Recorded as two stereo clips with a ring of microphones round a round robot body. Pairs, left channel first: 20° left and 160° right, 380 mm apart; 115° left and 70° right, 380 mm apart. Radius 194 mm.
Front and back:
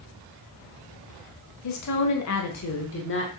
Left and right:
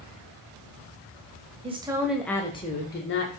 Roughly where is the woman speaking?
Ahead.